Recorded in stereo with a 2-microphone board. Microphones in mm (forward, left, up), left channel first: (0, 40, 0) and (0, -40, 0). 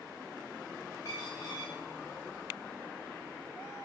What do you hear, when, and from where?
1.1 s a dropped coin: 40° left (ahead or behind), 9.5 m